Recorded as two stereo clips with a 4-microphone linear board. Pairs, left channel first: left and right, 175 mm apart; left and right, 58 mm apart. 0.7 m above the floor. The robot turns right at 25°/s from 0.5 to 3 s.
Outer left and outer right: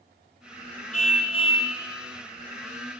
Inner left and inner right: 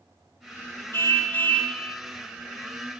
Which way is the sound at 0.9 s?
45° left (ahead or behind).